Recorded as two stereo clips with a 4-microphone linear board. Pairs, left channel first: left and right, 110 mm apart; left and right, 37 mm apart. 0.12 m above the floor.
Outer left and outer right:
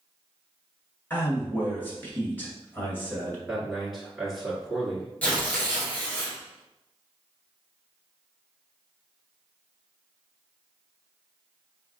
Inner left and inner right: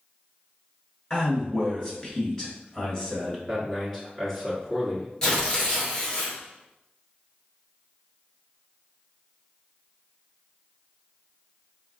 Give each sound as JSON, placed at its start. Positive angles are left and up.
{"t": 1.1, "sound": "a man speaking", "side_deg": 20, "distance_m": 1.4}
{"t": 3.5, "sound": "a man speaking", "side_deg": -5, "distance_m": 1.5}
{"t": 5.2, "sound": "tearing paper", "side_deg": 15, "distance_m": 1.3}